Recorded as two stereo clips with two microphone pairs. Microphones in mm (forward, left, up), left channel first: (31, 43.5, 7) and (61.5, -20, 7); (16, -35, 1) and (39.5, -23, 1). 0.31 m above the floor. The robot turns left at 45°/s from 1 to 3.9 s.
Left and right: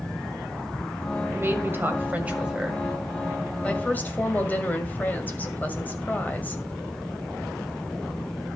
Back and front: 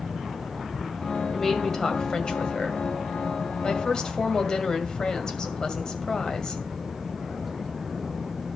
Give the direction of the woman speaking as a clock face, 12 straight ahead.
3 o'clock.